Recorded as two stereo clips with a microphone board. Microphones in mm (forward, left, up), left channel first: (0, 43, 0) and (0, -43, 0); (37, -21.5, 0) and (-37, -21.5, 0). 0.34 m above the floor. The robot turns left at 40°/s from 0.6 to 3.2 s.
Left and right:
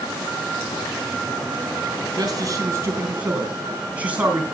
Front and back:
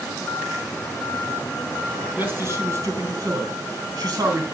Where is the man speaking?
115° right, 3.5 m; by 4.4 s 160° right, 3.5 m.